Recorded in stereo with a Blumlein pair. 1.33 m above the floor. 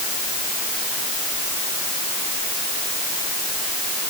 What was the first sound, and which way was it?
Only background noise.